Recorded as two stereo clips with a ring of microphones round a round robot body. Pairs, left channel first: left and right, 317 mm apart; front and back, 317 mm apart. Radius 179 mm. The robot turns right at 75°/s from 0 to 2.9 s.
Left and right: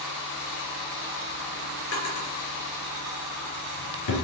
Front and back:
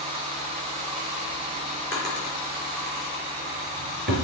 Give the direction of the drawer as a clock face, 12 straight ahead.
10 o'clock.